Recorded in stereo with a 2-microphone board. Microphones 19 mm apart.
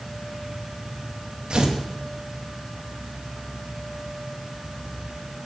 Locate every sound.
1.5 s tearing paper: 55° right (ahead or behind), 2.5 m